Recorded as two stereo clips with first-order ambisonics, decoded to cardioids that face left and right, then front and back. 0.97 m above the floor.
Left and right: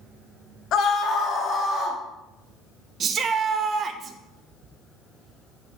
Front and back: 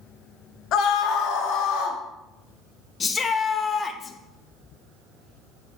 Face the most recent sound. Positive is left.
turn(degrees=-55)